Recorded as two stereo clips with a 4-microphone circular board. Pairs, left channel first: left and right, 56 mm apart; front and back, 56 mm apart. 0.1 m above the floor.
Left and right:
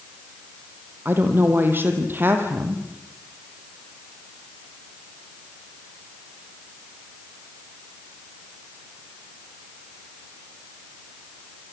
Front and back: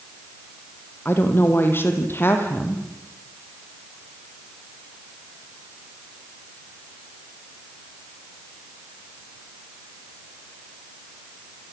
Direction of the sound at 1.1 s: 45° right.